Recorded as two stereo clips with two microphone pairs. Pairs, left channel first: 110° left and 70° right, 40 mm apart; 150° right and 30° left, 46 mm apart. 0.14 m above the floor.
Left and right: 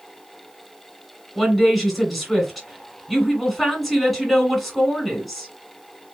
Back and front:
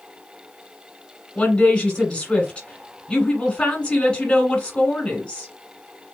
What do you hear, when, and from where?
1.4 s a woman speaking: 165° right, 1.6 m